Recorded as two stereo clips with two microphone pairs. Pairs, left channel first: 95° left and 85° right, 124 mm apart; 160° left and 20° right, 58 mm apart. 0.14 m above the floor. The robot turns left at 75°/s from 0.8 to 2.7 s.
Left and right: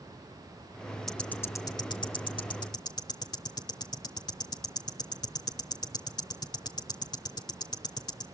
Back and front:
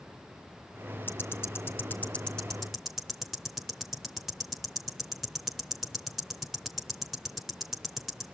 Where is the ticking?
175° right, 1.0 m; by 8.2 s 60° left, 1.0 m.